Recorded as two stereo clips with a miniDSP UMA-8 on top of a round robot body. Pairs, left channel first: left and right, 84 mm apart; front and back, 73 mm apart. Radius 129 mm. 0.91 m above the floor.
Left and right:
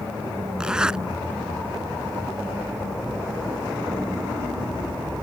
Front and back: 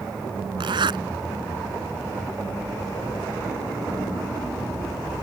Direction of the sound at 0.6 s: 170° right.